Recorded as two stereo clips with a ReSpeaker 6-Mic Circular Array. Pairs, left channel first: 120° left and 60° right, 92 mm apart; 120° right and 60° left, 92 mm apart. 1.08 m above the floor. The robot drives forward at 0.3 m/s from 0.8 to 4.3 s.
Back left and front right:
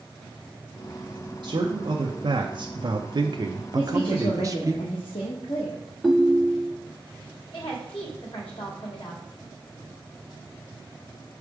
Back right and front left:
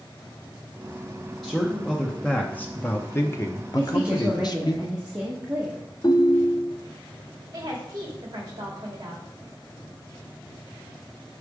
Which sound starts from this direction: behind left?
A woman speaking, at 3.8 s.